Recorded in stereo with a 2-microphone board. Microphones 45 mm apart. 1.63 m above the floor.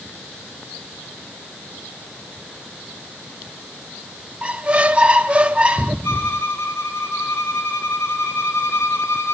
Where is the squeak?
25° right (ahead or behind), 0.5 m.